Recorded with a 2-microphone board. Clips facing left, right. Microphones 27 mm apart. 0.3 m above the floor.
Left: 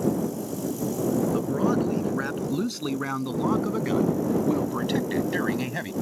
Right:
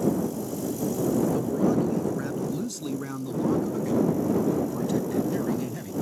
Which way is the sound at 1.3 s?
35° left (ahead or behind).